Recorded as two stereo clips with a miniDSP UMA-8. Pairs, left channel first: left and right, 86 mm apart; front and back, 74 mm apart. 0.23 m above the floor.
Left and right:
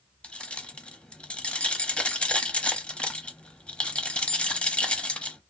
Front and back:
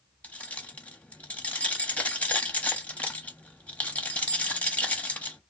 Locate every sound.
0.2 s keys jangling: 35° left, 0.6 m